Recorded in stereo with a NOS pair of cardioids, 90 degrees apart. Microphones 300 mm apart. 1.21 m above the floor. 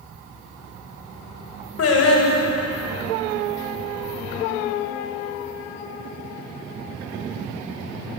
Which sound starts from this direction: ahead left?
Singing, at 1.8 s.